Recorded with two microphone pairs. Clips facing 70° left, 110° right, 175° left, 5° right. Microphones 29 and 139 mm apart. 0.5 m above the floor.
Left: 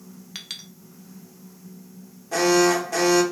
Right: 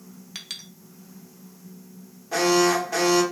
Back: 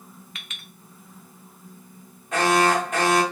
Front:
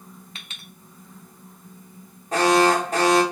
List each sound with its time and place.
0.3 s a clink: 15° right, 0.5 m
2.3 s an alarm: 35° right, 1.1 m